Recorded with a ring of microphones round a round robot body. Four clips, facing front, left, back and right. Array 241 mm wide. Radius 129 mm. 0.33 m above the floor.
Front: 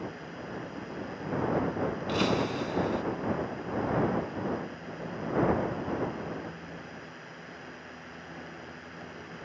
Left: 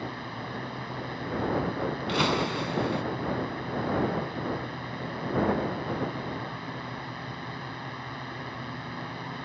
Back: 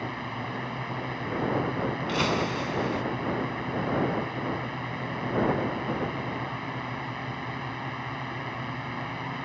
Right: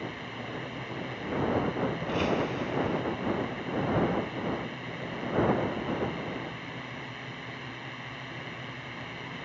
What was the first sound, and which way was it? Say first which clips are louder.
A drone: left 2 dB, back 5 dB; 165° left.